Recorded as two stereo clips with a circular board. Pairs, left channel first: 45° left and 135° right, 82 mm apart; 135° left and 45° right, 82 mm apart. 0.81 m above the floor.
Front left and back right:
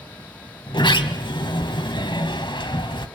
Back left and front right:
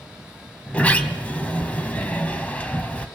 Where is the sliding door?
60° left, 2 m.